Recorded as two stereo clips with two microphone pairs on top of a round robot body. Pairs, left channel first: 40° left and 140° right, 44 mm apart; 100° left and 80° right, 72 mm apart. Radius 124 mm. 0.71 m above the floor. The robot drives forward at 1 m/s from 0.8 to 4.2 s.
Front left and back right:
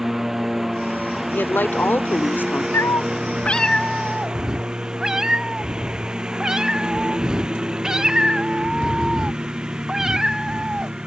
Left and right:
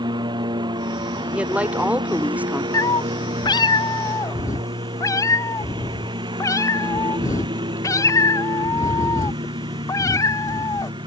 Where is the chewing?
No chewing in this recording.